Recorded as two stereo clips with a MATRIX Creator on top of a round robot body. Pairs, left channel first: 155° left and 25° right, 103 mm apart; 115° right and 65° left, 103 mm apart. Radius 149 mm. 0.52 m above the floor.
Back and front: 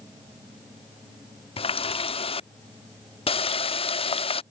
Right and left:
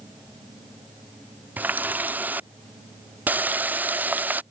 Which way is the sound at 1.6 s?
140° left.